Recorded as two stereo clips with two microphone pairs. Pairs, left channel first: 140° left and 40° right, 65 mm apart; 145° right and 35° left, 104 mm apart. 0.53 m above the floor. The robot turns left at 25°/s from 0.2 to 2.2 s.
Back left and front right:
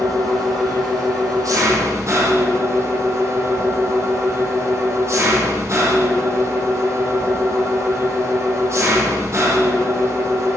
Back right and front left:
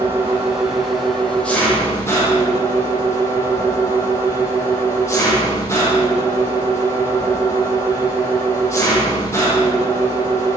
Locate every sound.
0.0 s an engine running: 30° right, 10 m; by 10.6 s 80° right, 10 m